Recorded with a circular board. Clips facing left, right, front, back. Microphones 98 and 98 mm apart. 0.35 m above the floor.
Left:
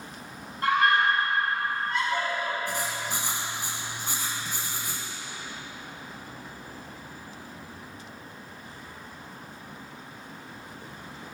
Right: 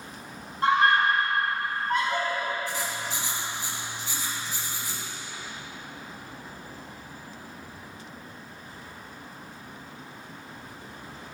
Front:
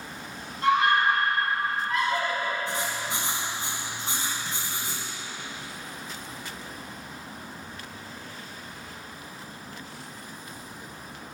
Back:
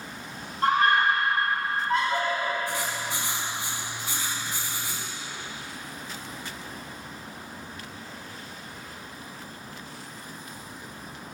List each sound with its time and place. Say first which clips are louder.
0.6 s a scream: right 1 dB, even; 150° right, 2.5 m; by 2.6 s 115° right, 4 m
2.7 s writing: left 1 dB, even; 60° left, 2 m